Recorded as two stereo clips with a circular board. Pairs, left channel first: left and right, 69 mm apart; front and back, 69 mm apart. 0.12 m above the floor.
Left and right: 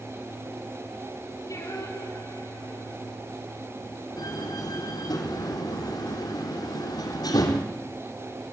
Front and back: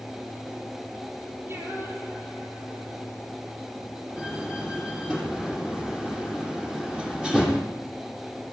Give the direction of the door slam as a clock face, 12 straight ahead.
9 o'clock.